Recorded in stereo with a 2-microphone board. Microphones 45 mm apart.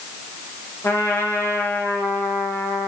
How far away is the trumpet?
About 3 m.